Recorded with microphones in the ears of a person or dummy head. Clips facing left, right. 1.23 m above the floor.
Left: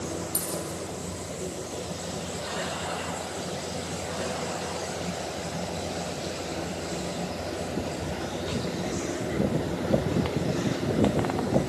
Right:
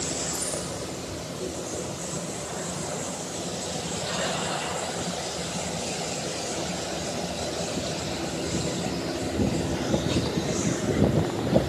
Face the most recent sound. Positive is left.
turn(degrees=40)  # may be behind; listen again after turning